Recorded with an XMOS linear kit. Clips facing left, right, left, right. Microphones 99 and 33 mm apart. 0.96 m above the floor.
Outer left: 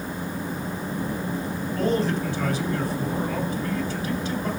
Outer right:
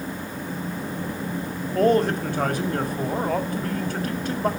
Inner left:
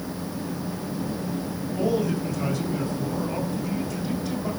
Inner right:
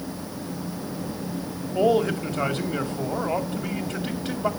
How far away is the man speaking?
About 2 m.